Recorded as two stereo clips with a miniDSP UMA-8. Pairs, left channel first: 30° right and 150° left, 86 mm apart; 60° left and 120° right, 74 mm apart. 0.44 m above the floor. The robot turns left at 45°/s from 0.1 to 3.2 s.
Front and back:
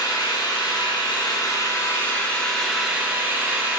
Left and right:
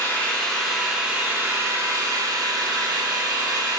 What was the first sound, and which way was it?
An engine running, 5° right.